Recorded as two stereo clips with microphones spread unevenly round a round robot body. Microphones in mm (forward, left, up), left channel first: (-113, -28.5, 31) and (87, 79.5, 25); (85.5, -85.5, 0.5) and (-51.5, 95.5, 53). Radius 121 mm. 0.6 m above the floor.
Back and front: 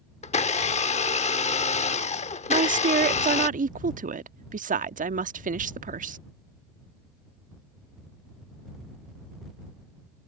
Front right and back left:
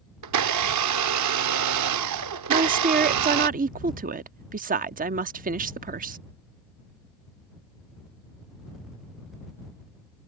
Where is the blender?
145° left.